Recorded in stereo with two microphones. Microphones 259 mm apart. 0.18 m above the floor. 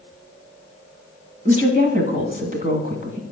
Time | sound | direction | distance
1.4 | a woman speaking | 30° right (ahead or behind) | 1.4 m